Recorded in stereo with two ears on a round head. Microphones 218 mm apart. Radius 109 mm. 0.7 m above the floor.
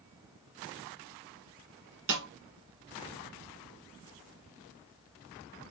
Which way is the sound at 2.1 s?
50° right (ahead or behind).